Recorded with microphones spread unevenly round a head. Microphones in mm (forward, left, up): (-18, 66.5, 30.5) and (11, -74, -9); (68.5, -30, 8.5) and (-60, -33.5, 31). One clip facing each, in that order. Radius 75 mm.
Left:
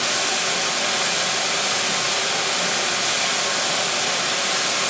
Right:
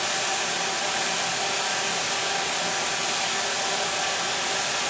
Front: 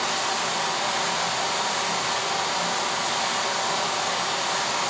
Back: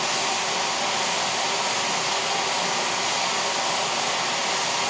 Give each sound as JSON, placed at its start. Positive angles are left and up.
{"t": 0.0, "sound": "running water", "azimuth_deg": 105, "distance_m": 1.6}